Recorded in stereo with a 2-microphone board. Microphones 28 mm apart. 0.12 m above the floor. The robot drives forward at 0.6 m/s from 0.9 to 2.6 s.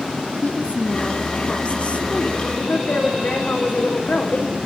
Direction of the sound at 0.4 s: 45° left (ahead or behind).